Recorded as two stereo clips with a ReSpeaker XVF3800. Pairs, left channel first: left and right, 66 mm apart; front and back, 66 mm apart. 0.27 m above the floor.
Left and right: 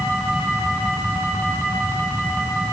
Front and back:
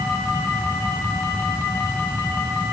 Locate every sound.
Only background noise.